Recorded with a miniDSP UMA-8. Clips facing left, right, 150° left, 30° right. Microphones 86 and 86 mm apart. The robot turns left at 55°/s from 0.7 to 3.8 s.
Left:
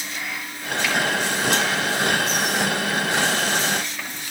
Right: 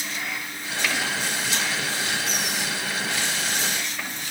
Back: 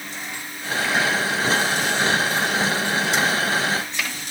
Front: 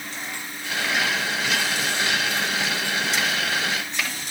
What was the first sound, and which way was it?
Only background noise.